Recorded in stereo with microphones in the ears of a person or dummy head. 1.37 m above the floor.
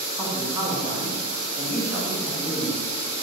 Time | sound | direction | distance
0.2 | a man speaking | 10° right (ahead or behind) | 1.1 m